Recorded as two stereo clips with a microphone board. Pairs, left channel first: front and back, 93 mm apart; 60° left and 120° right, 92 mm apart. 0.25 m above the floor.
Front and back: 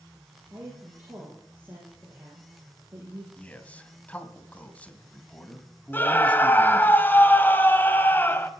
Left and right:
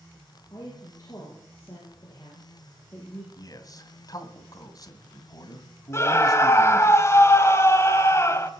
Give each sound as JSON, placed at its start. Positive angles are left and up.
{"t": 0.5, "sound": "a woman speaking", "azimuth_deg": 105, "distance_m": 8.0}
{"t": 3.4, "sound": "a man speaking", "azimuth_deg": 70, "distance_m": 1.9}
{"t": 5.9, "sound": "a scream", "azimuth_deg": 45, "distance_m": 1.5}